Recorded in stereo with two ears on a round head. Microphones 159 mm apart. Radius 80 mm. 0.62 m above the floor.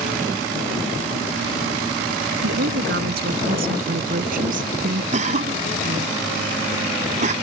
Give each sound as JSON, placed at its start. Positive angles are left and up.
{"t": 2.4, "sound": "a woman speaking", "side_deg": -65}
{"t": 5.1, "sound": "a cough", "side_deg": -45}